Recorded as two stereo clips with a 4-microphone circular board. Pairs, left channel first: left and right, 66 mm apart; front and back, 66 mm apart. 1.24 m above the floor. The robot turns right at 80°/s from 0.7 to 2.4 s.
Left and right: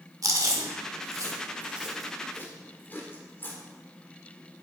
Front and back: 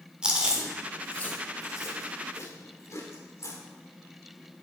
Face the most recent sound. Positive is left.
turn(degrees=35)